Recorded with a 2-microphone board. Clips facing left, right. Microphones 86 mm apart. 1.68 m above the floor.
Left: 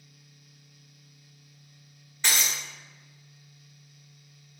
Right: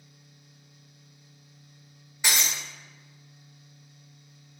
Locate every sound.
2.2 s breaking glass: 10° right (ahead or behind), 1.4 m